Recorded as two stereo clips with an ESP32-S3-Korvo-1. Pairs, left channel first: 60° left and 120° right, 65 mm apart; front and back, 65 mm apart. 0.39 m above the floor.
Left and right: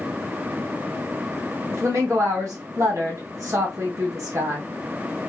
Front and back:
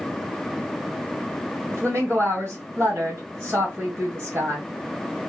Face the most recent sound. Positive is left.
turn(degrees=-140)